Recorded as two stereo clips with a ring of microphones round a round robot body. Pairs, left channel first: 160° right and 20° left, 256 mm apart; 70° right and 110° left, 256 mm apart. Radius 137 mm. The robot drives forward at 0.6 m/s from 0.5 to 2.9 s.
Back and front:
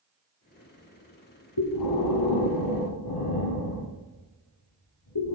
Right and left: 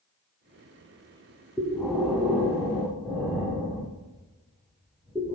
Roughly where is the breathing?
Behind right.